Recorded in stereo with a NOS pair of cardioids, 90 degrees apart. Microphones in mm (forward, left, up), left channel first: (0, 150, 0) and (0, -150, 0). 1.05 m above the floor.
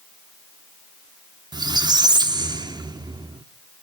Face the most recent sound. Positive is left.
turn(degrees=-15)